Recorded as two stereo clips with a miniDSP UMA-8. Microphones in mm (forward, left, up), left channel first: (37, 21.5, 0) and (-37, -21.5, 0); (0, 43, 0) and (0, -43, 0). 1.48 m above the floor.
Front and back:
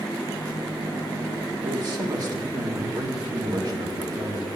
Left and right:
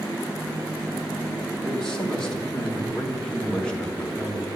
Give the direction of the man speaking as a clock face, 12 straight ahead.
6 o'clock.